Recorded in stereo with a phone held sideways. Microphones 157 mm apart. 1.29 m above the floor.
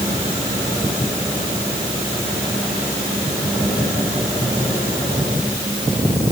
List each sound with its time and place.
Only background noise.